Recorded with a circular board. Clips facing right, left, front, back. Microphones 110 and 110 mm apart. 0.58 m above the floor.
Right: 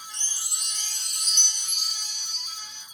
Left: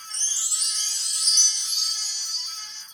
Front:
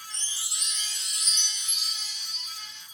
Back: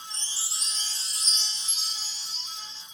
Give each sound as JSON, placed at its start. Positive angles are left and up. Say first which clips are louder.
{"t": 0.1, "sound": "a chime", "louder": "right 1 dB, back 1 dB", "azimuth_deg": -125, "distance_m": 0.9}